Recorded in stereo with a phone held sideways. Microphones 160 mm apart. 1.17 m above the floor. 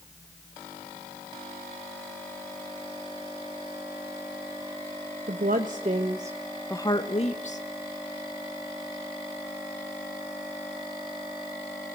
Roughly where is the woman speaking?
Right.